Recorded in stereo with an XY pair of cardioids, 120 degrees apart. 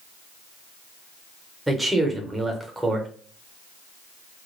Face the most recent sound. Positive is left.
turn(degrees=-5)